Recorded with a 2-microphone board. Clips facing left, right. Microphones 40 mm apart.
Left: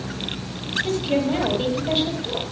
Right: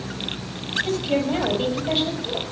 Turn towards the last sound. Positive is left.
turn(degrees=5)  # may be behind; listen again after turning